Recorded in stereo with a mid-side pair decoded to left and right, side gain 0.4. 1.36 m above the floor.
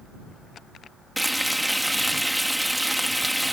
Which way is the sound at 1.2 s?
5° right.